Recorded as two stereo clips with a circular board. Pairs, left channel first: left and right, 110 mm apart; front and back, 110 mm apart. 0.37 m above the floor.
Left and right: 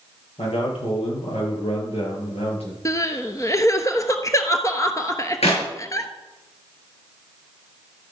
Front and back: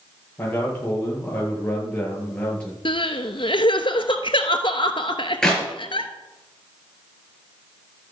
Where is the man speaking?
70° left, 8 m; by 2.8 s 80° left, 7 m.